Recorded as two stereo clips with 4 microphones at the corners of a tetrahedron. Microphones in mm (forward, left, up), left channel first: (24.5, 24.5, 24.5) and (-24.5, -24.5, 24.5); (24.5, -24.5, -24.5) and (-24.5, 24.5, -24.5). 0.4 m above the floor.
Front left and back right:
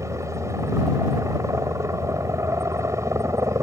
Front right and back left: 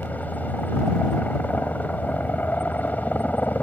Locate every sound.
0.0 s a helicopter: 105° right